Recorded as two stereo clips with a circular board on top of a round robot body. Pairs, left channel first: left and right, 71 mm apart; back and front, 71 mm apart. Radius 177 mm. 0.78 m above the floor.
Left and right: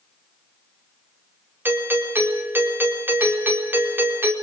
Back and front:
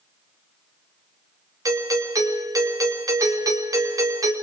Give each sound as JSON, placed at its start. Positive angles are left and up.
{"t": 1.6, "sound": "a doorbell", "azimuth_deg": -30, "distance_m": 4.5}